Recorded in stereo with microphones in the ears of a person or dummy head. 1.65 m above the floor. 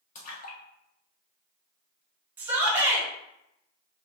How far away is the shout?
About 1.1 m.